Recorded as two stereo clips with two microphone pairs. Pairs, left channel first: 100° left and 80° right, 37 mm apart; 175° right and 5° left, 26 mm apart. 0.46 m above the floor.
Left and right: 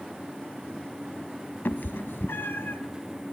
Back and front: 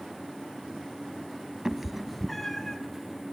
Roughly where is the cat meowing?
Left.